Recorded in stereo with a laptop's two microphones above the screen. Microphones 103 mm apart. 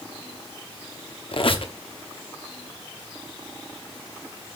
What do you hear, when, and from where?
1.3 s a squeak: 60° left (ahead or behind), 1.0 m